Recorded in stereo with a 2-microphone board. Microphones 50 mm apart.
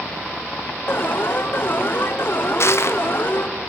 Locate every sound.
0.9 s an alarm: 50° left (ahead or behind), 1.2 m
2.6 s crushing: 60° left (ahead or behind), 0.8 m